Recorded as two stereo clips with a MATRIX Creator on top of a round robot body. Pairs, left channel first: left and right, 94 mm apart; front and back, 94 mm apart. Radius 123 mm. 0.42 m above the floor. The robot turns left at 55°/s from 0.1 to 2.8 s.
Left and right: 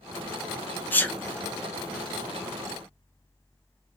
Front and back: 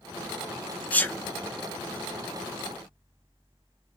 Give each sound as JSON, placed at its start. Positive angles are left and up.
{"t": 0.9, "sound": "a sneeze", "azimuth_deg": 50, "distance_m": 0.9}